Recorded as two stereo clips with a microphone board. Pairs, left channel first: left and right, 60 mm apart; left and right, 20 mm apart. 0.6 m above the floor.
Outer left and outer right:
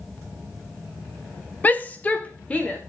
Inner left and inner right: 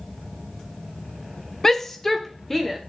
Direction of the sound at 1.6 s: 25° left (ahead or behind).